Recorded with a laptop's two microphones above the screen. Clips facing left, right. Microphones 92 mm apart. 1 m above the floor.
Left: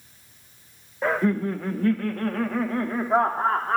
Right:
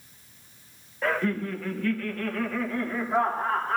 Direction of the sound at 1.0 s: 15° left (ahead or behind).